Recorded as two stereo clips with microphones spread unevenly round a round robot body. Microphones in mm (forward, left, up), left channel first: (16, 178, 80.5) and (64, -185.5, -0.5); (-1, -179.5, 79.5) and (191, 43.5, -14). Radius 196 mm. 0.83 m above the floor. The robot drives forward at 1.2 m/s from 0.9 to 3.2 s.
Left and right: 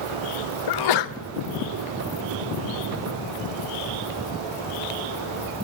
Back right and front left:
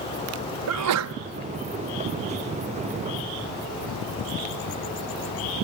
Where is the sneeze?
65° left, 0.9 m; by 1.1 s 85° left, 0.9 m.